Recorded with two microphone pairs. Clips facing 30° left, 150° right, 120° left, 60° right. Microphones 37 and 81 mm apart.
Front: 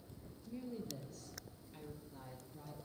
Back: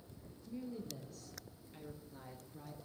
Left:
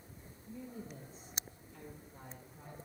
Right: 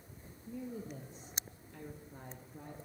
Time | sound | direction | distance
0.5 | a woman speaking | 45° right | 3.5 m